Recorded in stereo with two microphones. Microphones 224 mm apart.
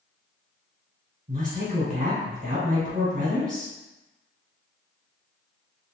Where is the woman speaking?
35° right (ahead or behind), 1.7 m.